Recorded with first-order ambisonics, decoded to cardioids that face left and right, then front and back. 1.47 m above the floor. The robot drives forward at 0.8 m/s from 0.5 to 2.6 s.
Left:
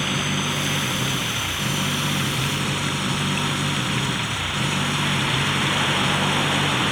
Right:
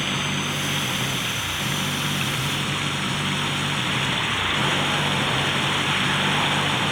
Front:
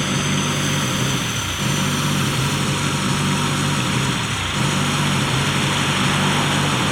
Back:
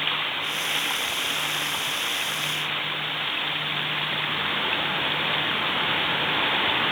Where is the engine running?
10° left.